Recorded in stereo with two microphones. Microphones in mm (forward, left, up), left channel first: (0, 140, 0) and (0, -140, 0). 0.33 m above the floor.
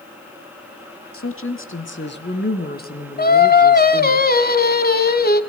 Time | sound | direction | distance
1.1 | a woman speaking | 50° left (ahead or behind) | 3 m
3.2 | singing | 35° left (ahead or behind) | 1.3 m